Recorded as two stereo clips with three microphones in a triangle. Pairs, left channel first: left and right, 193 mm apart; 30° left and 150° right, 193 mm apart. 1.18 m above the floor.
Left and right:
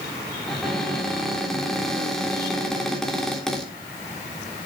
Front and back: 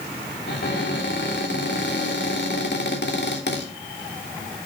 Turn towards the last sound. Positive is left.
turn(degrees=0)